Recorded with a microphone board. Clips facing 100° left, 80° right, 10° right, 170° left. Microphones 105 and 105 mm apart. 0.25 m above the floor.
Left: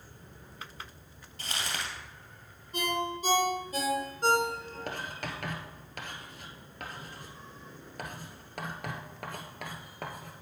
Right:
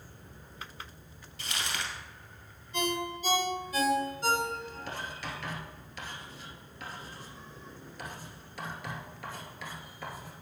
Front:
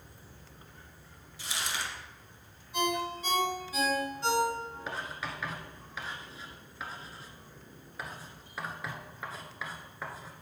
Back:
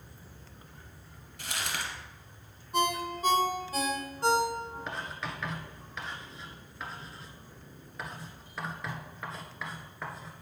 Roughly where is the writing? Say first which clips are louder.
Left 3 dB, even; left.